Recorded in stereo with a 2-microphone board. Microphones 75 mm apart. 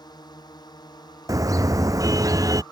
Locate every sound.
0.0 s a drone: 65° left (ahead or behind); by 2.7 s 70° left (ahead or behind)
1.3 s a car horn: 50° right (ahead or behind)